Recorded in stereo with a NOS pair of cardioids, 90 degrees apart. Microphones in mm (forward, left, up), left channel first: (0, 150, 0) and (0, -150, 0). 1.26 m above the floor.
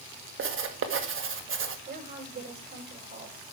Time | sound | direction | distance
0.4 | writing | 40° right | 1.7 m
1.9 | a woman speaking | 30° right | 6.5 m